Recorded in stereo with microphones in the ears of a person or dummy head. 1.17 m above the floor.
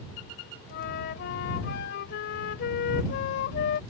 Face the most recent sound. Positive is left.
turn(degrees=65)  # may be behind; listen again after turning